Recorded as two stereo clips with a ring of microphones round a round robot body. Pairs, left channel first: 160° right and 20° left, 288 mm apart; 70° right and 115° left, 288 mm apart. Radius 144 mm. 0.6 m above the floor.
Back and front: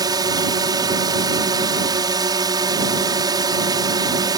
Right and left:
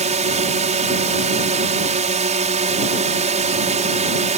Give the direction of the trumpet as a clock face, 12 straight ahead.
I don't hear a trumpet.